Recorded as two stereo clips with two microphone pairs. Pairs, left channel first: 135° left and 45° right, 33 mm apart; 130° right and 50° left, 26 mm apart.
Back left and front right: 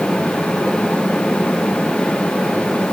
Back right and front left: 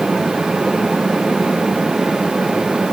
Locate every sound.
Only background noise.